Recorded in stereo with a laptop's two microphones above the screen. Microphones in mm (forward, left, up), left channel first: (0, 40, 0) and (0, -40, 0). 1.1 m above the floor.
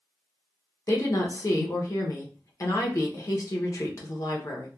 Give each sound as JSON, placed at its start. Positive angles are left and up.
{"t": 0.9, "sound": "a woman speaking", "side_deg": 45, "distance_m": 0.6}